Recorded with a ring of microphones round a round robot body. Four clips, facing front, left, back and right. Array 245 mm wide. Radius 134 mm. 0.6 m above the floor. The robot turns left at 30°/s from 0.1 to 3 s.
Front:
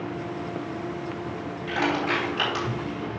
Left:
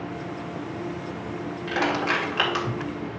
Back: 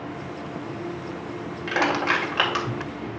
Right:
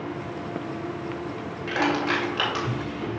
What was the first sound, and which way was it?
Crushing, 175° right.